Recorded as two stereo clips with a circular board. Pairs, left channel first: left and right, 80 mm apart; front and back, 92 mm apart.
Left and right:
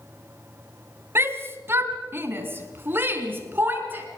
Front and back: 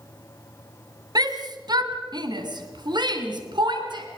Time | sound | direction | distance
1.1 | a shout | 145° right | 2.5 m